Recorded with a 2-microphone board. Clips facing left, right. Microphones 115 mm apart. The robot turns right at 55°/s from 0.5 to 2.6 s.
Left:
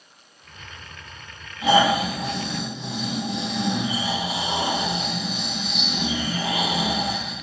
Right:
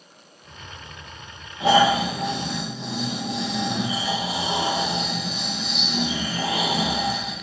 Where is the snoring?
95° right, 4 m; by 7.3 s 40° right, 4 m.